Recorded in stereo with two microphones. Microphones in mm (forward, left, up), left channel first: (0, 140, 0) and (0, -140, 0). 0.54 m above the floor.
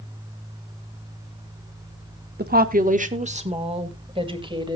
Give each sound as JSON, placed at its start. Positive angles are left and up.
{"t": 2.4, "sound": "a woman speaking", "side_deg": -35, "distance_m": 0.9}